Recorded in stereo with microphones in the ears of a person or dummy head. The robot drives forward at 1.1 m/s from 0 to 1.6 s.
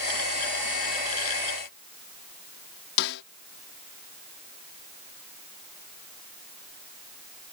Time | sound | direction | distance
3.0 | a snare drum | 65° left (ahead or behind) | ?